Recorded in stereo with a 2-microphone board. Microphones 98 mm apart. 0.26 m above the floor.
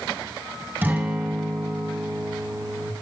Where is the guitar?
20° right (ahead or behind), 2 m.